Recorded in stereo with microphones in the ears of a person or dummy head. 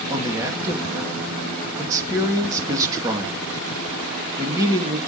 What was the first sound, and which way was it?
A man speaking, 20° right (ahead or behind).